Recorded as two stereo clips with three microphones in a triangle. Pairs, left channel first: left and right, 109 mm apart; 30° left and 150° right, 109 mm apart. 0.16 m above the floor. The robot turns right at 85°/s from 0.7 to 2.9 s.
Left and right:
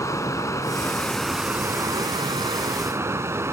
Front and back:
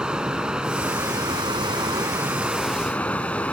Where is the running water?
130° left, 1.3 m; by 3.5 s 40° right, 1.3 m.